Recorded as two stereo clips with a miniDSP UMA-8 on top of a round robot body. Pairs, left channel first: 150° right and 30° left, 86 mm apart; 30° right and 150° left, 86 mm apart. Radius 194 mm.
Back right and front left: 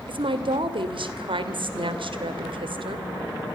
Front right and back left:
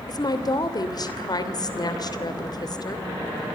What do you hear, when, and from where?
0.1 s a woman speaking: 10° left, 3 m